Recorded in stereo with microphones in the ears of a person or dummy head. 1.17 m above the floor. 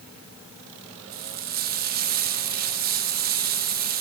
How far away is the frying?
About 1.6 m.